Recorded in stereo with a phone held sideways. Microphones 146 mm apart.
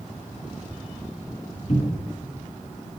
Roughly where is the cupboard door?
Left.